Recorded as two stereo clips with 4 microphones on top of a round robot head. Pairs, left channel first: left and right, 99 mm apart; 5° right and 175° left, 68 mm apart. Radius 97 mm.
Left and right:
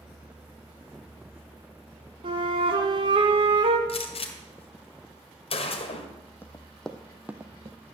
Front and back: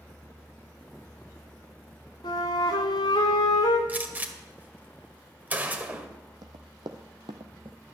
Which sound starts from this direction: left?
A gunshot, at 3.9 s.